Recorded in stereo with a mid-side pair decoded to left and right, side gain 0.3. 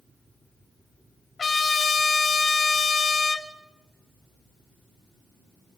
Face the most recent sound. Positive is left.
turn(degrees=55)